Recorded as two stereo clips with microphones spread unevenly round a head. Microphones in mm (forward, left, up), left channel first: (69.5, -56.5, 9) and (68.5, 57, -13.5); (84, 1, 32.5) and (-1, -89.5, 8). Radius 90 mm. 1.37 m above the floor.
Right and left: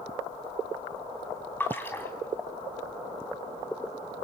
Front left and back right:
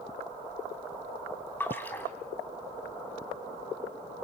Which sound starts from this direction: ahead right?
A splash, at 1.6 s.